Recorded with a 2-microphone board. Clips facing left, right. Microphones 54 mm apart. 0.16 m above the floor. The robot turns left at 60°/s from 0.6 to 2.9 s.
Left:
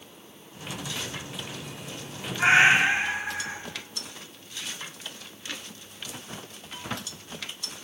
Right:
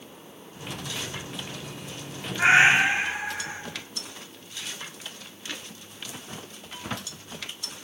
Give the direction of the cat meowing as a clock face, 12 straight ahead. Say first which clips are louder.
Right 1 dB; 5 o'clock.